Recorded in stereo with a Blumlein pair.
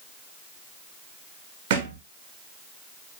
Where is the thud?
45° right, 1.9 m.